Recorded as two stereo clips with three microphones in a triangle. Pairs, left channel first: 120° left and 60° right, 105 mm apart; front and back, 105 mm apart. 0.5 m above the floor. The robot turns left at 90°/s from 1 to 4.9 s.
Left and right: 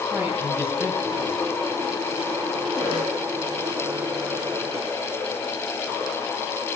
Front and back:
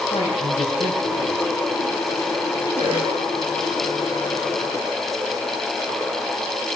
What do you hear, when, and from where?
0.1 s a man speaking: 5° left, 3.5 m; by 1.4 s 30° right, 3.5 m
2.8 s a cough: 155° right, 8.5 m; by 3.1 s 170° left, 8.5 m